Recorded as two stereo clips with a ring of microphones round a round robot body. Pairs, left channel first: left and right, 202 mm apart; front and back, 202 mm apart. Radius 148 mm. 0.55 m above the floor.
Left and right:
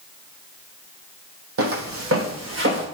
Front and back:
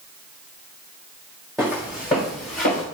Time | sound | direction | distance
1.6 | footsteps | 90° right | 1.3 m